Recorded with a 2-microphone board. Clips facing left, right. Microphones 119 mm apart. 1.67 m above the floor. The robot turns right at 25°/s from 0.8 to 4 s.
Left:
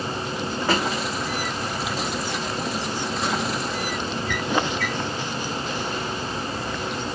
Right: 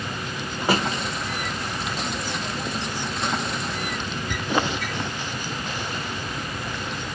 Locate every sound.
0.6 s a drawer: 15° right (ahead or behind), 0.8 m; by 4.9 s 20° right (ahead or behind), 0.8 m